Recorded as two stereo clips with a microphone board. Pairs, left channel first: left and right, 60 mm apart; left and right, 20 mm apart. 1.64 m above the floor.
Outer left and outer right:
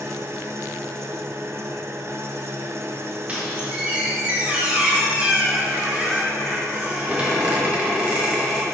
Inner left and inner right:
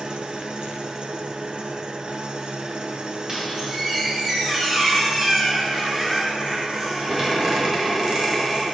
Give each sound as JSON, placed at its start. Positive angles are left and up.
{"t": 0.0, "sound": "an engine running", "side_deg": -50, "distance_m": 0.8}
{"t": 3.3, "sound": "a squeak", "side_deg": -25, "distance_m": 3.0}